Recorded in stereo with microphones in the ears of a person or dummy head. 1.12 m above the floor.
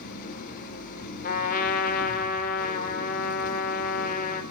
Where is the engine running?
50° left (ahead or behind), 5.5 m.